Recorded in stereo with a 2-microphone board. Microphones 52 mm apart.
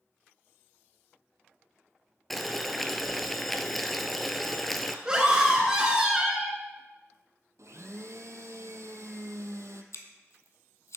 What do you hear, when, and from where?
2.3 s boiling: 5° left (ahead or behind), 0.5 m
5.0 s a scream: 15° right (ahead or behind), 1.6 m
7.6 s a blender: 75° right (ahead or behind), 0.6 m
9.9 s scissors: 70° left (ahead or behind), 0.8 m